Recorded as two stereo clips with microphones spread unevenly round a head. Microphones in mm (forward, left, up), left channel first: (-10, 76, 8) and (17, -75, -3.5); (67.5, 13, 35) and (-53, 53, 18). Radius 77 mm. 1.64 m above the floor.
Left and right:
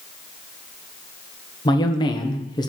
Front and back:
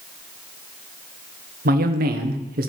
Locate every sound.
1.6 s a man speaking: 165° left, 1.2 m